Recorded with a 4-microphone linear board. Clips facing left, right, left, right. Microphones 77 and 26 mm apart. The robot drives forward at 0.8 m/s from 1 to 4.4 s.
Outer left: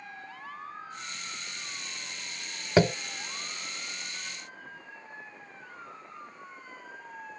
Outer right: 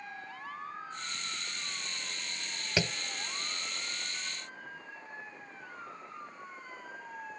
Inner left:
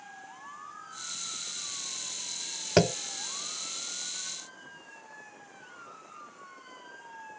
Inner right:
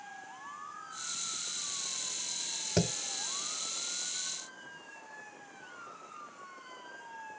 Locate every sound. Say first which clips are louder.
2.8 s tapping: outer left 11 dB, inner left 8 dB; 45° left (ahead or behind); by 3.0 s 50° left (ahead or behind)